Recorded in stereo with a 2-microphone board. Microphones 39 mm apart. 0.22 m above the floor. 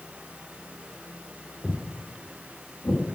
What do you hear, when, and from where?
1.6 s footsteps: 10° left (ahead or behind), 0.6 m; by 3.0 s 80° left, 1.4 m